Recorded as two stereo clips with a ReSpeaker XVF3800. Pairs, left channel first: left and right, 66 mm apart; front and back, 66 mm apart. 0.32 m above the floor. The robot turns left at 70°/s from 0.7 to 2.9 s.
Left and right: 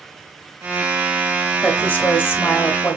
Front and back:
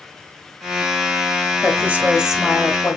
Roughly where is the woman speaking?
Behind left.